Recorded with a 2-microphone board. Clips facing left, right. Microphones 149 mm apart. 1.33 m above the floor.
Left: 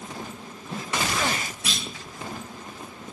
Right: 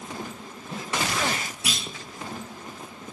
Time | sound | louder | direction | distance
1.6 | a clunk | even | 5° right (ahead or behind) | 2.5 m